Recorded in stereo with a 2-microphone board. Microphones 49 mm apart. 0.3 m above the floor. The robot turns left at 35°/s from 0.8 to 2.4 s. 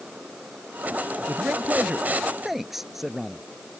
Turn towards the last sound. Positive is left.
turn(degrees=-175)